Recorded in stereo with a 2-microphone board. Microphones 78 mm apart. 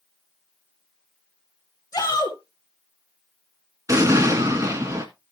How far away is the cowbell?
I don't hear a cowbell.